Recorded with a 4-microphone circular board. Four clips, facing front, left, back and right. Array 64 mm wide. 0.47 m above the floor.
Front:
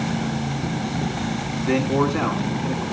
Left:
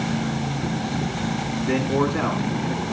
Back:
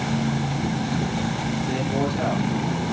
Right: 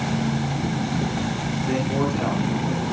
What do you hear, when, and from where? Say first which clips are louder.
1.6 s a man speaking: left 2 dB, front 7 dB; 10° left, 5.5 m